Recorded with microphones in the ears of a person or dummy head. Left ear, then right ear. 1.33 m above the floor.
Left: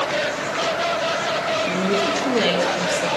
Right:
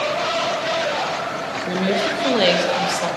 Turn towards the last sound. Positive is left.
turn(degrees=-45)  # may be behind; listen again after turning